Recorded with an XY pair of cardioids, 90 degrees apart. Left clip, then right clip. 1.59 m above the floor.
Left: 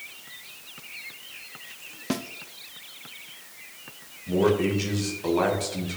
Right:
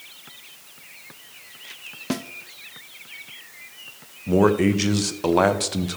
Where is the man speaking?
70° right, 1.1 m.